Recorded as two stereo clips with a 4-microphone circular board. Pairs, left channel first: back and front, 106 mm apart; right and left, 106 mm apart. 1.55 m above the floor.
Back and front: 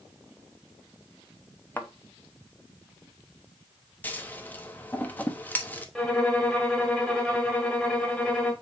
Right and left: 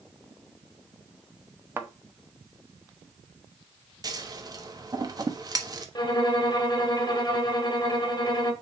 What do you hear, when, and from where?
1.8 s a thud: 130° left, 0.9 m
4.0 s scissors: 115° left, 1.1 m
6.0 s a violin: 100° right, 1.6 m